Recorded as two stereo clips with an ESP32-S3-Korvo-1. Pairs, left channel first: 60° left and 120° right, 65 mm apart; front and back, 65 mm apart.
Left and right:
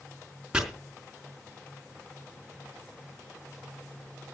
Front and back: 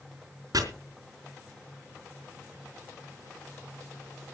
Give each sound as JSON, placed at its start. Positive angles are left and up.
{"t": 0.5, "sound": "chopping", "azimuth_deg": 160, "distance_m": 4.0}